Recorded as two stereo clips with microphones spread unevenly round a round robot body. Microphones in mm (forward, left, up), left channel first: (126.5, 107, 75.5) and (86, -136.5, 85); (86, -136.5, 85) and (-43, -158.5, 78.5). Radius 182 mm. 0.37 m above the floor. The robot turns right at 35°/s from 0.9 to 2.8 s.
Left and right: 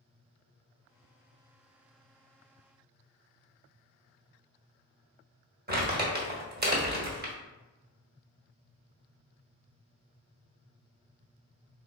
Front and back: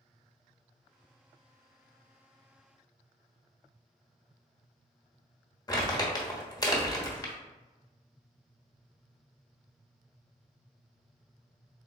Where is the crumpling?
50° right, 1.3 m.